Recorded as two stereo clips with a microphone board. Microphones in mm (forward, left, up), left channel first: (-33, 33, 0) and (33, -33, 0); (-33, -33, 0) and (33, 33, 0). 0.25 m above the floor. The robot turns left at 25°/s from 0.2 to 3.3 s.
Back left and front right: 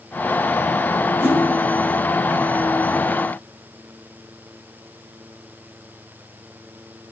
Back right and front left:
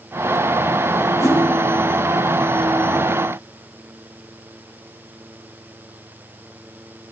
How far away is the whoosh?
About 1.9 m.